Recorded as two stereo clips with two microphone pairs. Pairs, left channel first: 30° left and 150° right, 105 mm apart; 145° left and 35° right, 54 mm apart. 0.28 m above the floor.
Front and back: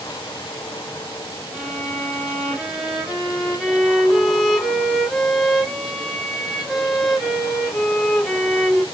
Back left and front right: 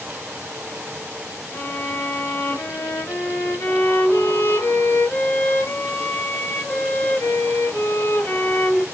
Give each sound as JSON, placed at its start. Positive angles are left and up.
{"t": 1.5, "sound": "a violin", "azimuth_deg": 115, "distance_m": 1.6}